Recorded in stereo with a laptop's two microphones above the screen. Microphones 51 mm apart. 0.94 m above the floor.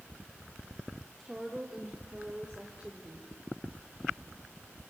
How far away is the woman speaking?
About 2.5 m.